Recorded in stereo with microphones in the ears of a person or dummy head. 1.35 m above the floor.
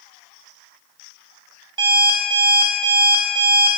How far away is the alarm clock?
About 1.4 m.